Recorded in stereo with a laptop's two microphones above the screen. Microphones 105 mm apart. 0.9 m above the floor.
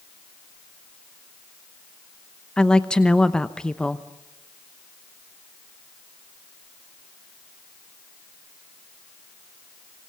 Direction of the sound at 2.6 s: 10° left (ahead or behind).